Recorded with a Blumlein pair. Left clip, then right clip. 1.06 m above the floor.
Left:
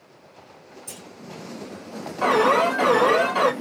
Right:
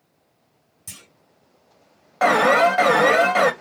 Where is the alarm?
55° right, 1.2 m.